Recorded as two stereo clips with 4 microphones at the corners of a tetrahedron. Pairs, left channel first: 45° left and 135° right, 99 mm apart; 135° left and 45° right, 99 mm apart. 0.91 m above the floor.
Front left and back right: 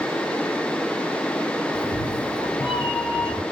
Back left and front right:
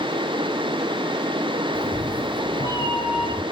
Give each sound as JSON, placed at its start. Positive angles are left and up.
{"t": 1.7, "sound": "a cat meowing", "azimuth_deg": 55, "distance_m": 1.5}